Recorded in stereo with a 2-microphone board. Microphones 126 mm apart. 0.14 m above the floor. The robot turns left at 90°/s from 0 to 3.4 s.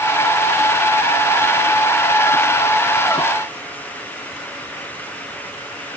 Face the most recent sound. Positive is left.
No sound to turn to.